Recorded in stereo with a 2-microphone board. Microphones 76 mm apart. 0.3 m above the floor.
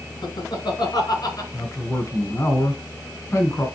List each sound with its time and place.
0.2 s laughter: 70° left (ahead or behind), 2.5 m; by 1.4 s 55° left (ahead or behind), 3.5 m
1.5 s a man speaking: 40° left (ahead or behind), 3 m